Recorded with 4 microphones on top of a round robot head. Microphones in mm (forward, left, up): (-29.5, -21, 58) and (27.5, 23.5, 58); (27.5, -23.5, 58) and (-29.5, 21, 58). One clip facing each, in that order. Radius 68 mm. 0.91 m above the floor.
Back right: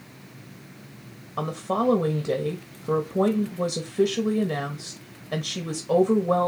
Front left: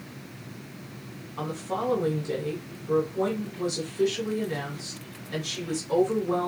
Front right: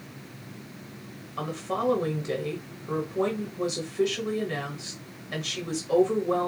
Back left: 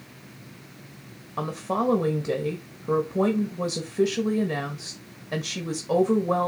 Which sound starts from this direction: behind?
A woman speaking, at 1.4 s.